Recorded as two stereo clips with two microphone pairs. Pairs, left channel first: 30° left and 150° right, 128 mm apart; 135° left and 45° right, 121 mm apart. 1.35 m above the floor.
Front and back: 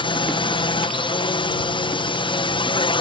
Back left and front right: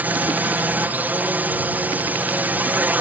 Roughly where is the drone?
Ahead left.